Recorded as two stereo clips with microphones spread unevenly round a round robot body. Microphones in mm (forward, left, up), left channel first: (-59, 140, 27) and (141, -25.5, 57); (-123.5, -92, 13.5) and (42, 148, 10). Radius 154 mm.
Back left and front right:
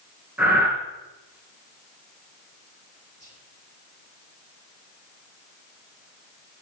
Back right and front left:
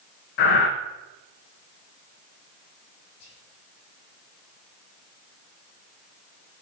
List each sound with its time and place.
0.4 s breathing: 125° right, 1.4 m
3.2 s whispering: 110° right, 6.5 m